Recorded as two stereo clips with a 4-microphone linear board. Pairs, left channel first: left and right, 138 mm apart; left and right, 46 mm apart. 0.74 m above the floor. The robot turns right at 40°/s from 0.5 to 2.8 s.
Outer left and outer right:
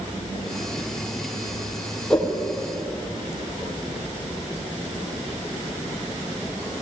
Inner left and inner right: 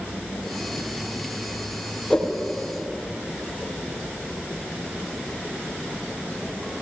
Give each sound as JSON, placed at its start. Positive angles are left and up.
{"t": 2.1, "sound": "a whoosh", "side_deg": 5, "distance_m": 3.5}